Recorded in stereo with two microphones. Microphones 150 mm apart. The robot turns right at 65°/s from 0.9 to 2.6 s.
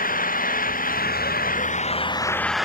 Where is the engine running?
70° left; by 2.7 s straight behind.